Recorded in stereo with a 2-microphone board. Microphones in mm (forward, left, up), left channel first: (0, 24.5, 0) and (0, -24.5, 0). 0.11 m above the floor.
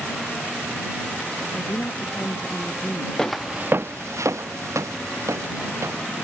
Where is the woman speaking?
30° left (ahead or behind).